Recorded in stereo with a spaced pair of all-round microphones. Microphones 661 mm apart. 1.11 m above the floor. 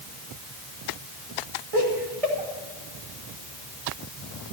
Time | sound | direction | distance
1.7 | laughter | 55° right (ahead or behind) | 2.5 m